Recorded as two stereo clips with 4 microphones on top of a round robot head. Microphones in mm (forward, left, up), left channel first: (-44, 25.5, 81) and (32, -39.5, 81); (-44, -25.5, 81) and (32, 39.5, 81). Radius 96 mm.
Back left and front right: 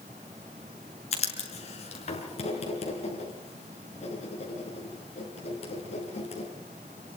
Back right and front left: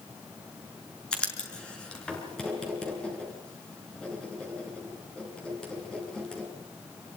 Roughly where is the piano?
I don't hear a piano.